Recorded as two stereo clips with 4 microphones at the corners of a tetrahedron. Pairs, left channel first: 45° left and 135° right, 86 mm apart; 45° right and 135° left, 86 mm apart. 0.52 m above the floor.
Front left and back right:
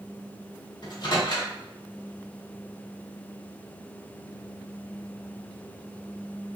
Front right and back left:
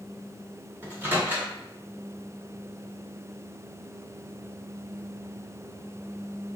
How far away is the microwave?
About 1.2 m.